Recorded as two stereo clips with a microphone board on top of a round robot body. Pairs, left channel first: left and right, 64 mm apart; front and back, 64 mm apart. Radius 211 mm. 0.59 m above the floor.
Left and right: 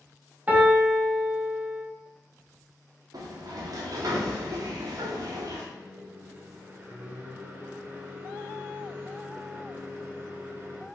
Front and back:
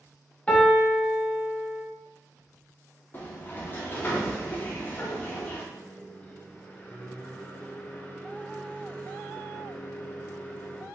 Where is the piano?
50° right, 1.4 m.